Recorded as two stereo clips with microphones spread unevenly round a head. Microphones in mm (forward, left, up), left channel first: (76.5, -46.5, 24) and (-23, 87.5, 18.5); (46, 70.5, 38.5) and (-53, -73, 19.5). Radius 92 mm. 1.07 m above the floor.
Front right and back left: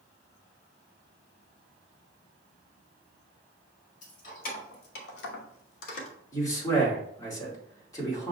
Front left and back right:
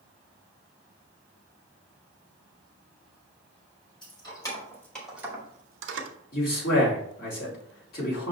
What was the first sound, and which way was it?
Keys jangling, 10° right.